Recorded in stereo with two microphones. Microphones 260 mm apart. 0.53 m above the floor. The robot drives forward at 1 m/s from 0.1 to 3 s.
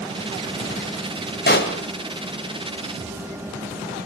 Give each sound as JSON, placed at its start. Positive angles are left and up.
{"t": 1.5, "sound": "a pop", "side_deg": 35, "distance_m": 2.0}